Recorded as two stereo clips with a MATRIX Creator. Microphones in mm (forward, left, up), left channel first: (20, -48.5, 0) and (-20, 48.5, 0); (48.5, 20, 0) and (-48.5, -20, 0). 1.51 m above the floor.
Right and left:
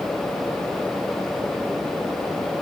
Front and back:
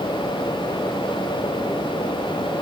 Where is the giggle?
I don't hear a giggle.